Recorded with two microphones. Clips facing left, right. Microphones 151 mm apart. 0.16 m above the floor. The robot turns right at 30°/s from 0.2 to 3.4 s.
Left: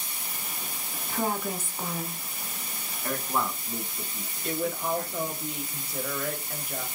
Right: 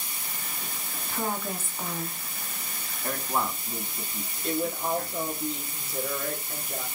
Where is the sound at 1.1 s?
20° left (ahead or behind), 1.2 m; by 2.2 s 5° left (ahead or behind), 1.2 m.